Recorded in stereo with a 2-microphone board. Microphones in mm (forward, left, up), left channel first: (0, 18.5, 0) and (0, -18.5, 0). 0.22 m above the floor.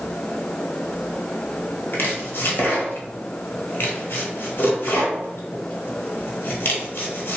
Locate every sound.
1.9 s chopping: 65° left (ahead or behind), 1.2 m